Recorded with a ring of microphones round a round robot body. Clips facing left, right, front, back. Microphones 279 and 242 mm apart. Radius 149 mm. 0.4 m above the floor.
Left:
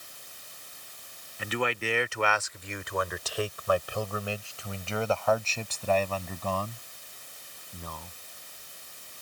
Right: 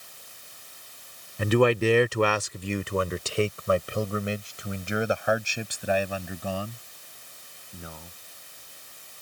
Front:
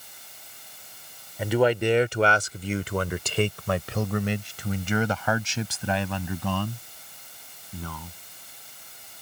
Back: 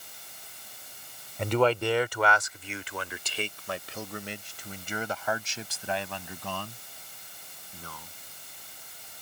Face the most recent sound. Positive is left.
turn(degrees=-5)